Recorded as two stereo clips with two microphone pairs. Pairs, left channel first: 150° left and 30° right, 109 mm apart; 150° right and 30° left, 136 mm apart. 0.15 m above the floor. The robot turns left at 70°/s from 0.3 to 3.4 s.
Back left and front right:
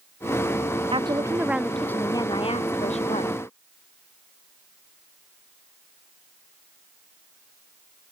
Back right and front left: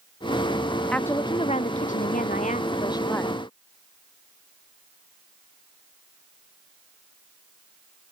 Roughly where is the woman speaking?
Right.